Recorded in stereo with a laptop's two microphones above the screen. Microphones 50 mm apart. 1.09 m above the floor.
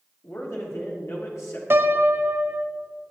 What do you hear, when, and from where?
0.2 s a man speaking: 70° left (ahead or behind), 1.8 m
1.7 s a piano: 55° right (ahead or behind), 0.7 m